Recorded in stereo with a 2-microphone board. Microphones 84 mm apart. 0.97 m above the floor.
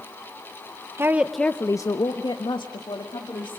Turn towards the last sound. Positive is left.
turn(degrees=75)  # may be behind; listen again after turning